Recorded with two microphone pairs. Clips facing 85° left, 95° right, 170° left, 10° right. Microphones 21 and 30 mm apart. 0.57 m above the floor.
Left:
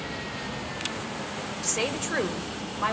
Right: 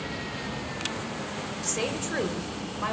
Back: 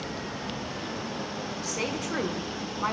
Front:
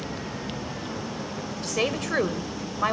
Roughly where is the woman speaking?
Ahead.